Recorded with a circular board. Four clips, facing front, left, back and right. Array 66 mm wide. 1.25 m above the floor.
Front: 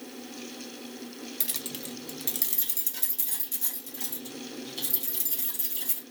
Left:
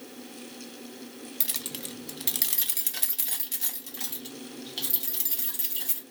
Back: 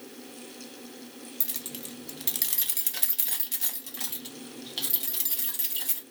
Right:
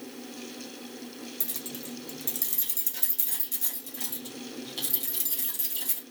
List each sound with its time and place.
1.4 s keys jangling: 55° left, 0.7 m; by 6.0 s 170° left, 2.5 m